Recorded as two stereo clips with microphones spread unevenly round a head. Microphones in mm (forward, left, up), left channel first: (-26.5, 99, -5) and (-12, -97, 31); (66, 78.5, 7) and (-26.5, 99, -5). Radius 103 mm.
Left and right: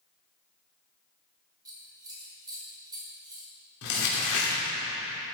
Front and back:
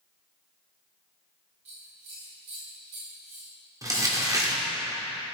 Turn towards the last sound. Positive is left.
turn(degrees=110)